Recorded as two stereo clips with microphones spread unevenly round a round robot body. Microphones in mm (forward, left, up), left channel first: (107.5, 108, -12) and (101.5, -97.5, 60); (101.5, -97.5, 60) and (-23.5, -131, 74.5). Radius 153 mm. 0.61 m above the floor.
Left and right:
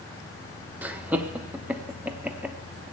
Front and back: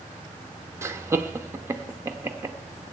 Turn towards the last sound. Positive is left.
turn(degrees=145)